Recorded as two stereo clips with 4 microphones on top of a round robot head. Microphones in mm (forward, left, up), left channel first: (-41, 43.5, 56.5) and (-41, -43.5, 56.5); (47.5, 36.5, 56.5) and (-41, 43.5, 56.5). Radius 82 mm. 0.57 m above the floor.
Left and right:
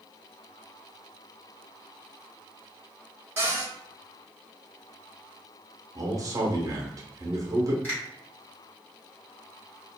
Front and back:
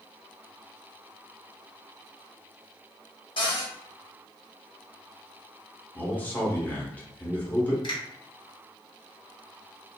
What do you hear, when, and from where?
3.4 s a cupboard door: 25° right, 1.4 m
6.0 s a man speaking: 70° right, 0.9 m
7.8 s a finger snap: 20° left, 1.2 m